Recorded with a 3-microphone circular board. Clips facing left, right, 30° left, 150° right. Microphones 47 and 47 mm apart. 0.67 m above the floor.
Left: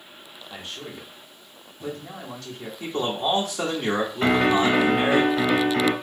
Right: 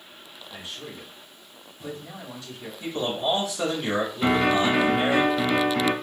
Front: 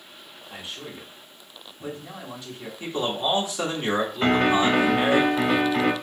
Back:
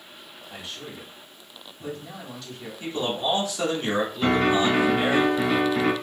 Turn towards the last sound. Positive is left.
turn(degrees=60)